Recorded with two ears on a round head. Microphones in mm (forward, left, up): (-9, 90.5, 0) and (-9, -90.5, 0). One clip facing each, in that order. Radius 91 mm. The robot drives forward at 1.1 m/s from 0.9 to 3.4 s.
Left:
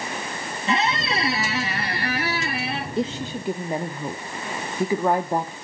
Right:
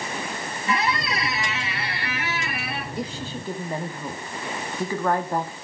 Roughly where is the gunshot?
No gunshot in this recording.